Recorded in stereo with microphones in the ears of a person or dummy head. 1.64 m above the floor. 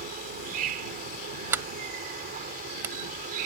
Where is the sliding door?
15° right (ahead or behind).